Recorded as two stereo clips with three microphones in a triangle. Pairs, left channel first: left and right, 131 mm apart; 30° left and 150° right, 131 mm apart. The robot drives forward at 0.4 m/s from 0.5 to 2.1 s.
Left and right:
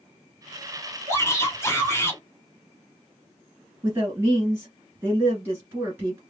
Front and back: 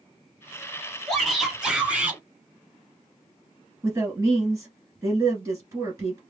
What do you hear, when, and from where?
1.1 s a shout: 115° left, 1.3 m; by 2.2 s 145° left, 1.4 m
3.8 s a woman speaking: 140° right, 1.4 m